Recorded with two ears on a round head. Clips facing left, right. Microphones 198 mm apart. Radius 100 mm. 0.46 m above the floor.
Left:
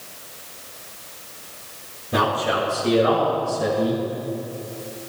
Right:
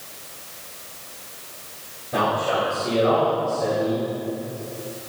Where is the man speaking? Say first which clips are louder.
Even; 45° left (ahead or behind), 5 m; by 4.0 s 70° left (ahead or behind), 5 m.